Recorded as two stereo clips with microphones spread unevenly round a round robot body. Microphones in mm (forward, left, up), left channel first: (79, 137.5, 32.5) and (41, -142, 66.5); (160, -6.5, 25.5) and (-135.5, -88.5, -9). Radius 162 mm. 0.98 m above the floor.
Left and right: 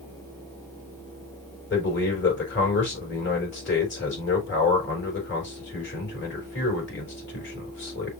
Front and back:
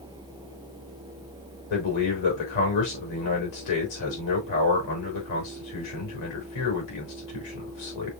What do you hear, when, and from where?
1.7 s a man speaking: 30° left, 4 m